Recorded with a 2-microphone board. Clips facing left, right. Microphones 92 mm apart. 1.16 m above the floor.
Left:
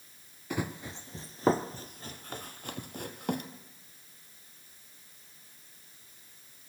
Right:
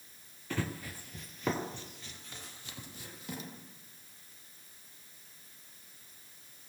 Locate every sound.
0.5 s running footsteps: 15° left (ahead or behind), 1.3 m; by 3.5 s 60° left (ahead or behind), 2 m